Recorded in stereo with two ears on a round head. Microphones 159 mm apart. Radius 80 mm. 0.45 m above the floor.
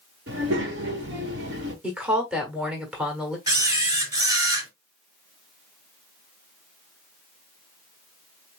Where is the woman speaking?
5° right (ahead or behind), 1.3 m.